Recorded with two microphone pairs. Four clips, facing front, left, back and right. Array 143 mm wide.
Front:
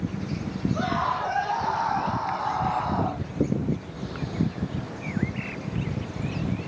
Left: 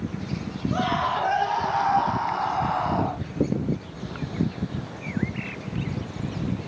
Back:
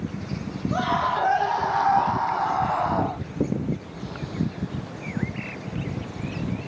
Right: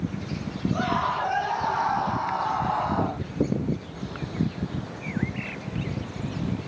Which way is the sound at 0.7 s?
165° left.